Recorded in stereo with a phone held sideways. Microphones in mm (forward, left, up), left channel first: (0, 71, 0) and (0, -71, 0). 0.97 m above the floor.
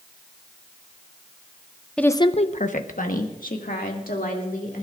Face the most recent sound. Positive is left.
turn(degrees=85)